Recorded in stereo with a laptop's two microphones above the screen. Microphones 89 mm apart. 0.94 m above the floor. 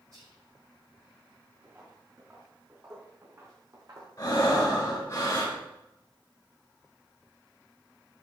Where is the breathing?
45° left (ahead or behind), 3.5 m.